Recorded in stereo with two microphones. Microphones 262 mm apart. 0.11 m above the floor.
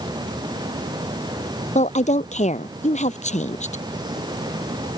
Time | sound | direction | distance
1.8 | a woman speaking | 30° left (ahead or behind) | ?